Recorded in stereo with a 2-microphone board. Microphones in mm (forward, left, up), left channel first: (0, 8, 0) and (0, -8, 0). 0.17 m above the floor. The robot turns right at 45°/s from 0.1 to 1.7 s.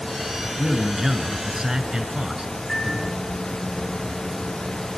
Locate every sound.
0.6 s a man speaking: 150° right, 1.5 m; by 2.5 s 100° right, 1.5 m
2.7 s a microwave: 50° left (ahead or behind), 7 m